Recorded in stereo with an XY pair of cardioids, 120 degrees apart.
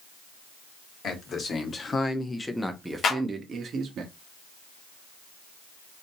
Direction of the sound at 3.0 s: 50° left.